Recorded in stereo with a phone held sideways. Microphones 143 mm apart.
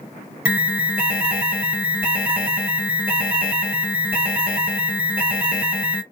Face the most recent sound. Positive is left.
turn(degrees=-10)  # may be behind; listen again after turning